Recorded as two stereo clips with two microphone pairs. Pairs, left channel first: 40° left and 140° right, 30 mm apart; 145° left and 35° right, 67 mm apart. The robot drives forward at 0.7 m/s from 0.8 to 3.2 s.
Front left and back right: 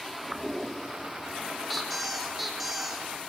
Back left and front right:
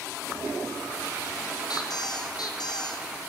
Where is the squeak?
130° left, 5.5 m; by 3.1 s 135° left, 6 m.